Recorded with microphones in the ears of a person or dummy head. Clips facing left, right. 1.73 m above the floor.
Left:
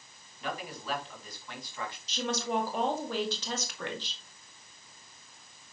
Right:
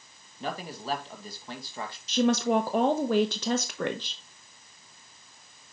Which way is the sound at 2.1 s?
50° right (ahead or behind).